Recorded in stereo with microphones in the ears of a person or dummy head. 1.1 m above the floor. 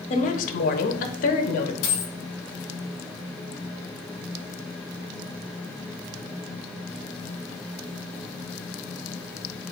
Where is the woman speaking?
30° left (ahead or behind), 0.6 m; by 1.7 s 45° left (ahead or behind), 1.1 m.